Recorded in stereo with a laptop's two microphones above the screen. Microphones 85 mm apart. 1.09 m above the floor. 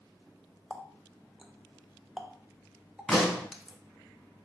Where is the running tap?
5° right (ahead or behind), 0.5 m.